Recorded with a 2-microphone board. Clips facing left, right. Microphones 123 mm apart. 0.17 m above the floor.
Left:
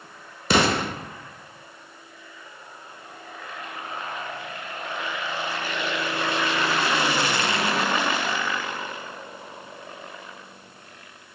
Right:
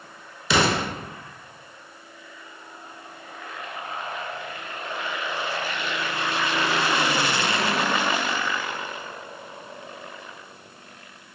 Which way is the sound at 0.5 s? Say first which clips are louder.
Left 1 dB; 50° left (ahead or behind).